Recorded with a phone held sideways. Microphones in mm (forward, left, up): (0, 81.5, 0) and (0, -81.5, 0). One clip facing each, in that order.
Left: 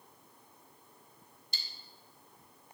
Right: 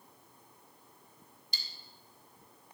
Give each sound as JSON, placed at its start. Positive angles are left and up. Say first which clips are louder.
{"t": 1.5, "sound": "cutlery clinking", "louder": "even", "side_deg": 55, "distance_m": 1.3}